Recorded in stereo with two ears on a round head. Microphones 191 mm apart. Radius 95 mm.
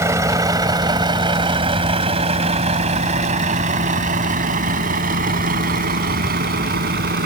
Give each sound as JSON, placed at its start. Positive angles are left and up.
{"t": 0.0, "sound": "a vehicle", "side_deg": -15}